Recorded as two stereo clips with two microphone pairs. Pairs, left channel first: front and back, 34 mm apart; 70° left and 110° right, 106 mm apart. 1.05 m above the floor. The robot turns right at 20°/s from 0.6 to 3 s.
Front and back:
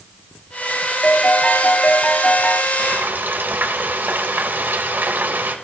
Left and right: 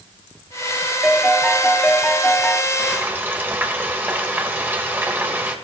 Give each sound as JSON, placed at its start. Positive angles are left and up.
{"t": 1.0, "sound": "a piano", "azimuth_deg": -25, "distance_m": 1.3}
{"t": 2.8, "sound": "frying", "azimuth_deg": 175, "distance_m": 2.0}